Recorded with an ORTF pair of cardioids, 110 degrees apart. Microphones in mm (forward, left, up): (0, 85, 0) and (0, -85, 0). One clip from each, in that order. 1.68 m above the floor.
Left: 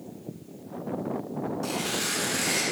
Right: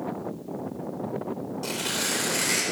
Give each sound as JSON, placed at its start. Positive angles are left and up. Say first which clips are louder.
{"t": 1.6, "sound": "tearing paper", "louder": "right 3 dB", "azimuth_deg": -15, "distance_m": 1.2}